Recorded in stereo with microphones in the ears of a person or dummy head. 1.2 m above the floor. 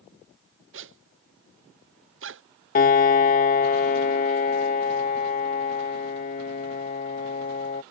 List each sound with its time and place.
0.7 s a zipper: 60° right (ahead or behind)
2.8 s a piano: 45° left (ahead or behind)